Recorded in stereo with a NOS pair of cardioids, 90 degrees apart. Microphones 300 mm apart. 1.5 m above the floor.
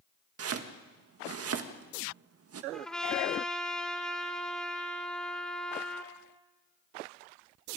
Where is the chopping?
50° right, 1.8 m.